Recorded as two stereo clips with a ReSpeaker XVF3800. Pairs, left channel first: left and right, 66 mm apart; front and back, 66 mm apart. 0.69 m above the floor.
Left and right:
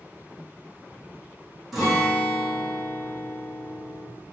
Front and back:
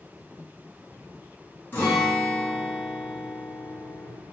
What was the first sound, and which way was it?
A guitar, straight ahead.